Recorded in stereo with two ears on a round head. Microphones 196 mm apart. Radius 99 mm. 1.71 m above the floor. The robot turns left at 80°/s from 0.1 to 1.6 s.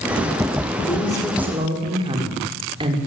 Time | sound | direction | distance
0.9 | a woman speaking | 35° left | 5 m